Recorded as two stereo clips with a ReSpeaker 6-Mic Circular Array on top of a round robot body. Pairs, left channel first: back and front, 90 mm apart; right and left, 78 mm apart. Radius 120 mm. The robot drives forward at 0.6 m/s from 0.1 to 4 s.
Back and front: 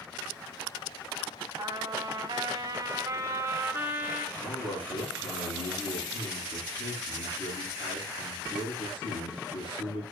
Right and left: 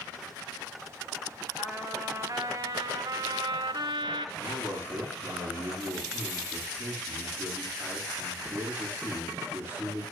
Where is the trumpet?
40° left, 2.5 m; by 4.3 s 75° left, 1.6 m.